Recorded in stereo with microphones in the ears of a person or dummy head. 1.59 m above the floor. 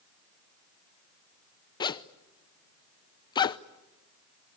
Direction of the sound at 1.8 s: 25° left (ahead or behind).